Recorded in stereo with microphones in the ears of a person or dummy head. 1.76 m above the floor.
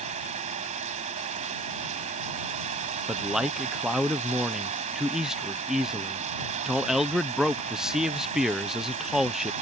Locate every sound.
0.0 s running water: 40° right (ahead or behind)
3.1 s a man speaking: 5° right (ahead or behind)